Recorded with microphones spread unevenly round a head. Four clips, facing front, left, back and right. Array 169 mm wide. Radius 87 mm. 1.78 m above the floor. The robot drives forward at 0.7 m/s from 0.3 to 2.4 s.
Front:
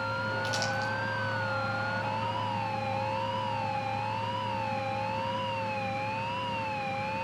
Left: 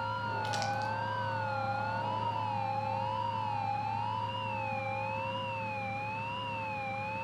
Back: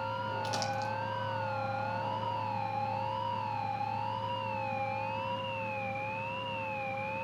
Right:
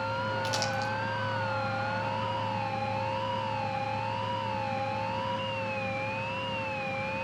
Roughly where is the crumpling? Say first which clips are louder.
Right 2 dB, front 2 dB; behind right.